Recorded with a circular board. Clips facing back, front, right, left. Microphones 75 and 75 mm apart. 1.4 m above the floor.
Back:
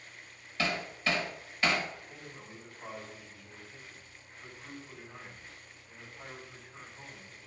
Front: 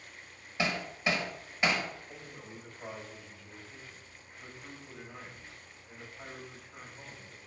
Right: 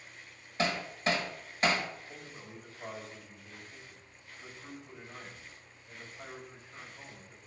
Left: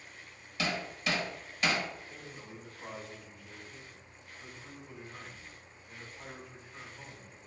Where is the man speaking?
60° right, 4 m.